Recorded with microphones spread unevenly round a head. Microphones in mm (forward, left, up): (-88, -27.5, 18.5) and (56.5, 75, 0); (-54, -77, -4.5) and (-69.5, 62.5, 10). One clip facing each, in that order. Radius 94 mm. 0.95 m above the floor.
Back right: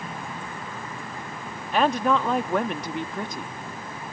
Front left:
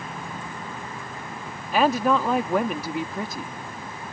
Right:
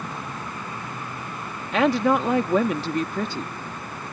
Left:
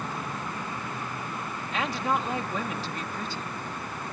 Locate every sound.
1.7 s a woman speaking: 50° right